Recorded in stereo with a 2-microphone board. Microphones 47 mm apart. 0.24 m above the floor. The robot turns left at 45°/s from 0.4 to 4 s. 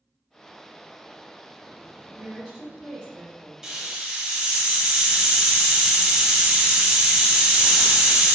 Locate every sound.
2.1 s a woman speaking: straight ahead, 1.0 m; by 3.5 s 65° right, 1.0 m
3.6 s a hiss: 15° right (ahead or behind), 0.7 m; by 8.3 s 20° right (ahead or behind), 0.7 m